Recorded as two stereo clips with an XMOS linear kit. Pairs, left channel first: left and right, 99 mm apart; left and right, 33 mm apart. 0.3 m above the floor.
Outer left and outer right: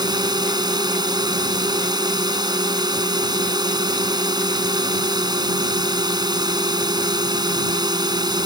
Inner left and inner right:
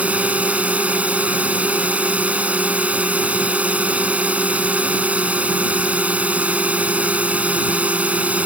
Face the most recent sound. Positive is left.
turn(degrees=-45)  # may be behind; listen again after turning